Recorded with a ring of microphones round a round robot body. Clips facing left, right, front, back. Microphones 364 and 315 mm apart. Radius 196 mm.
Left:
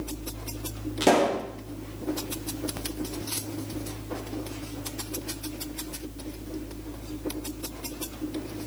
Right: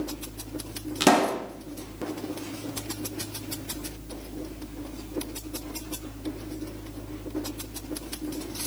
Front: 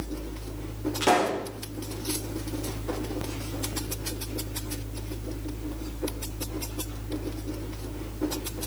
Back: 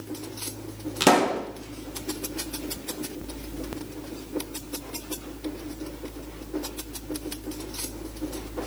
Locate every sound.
1.0 s a pop: 150° right, 1.8 m